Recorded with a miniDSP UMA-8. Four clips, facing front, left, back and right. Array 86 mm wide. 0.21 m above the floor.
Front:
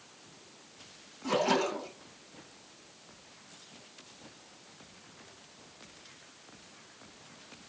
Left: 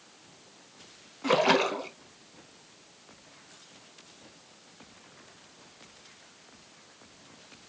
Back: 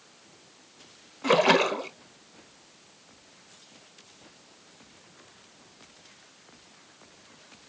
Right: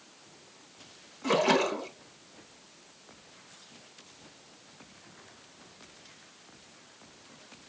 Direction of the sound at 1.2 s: 160° left.